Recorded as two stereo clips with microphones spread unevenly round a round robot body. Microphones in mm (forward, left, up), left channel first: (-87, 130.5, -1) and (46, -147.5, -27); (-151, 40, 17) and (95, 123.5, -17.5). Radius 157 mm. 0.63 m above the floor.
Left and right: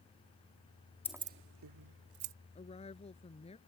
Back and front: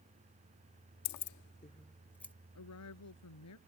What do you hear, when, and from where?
1.1 s keys jangling: 160° right; by 2.3 s 70° right
2.5 s a woman speaking: 175° right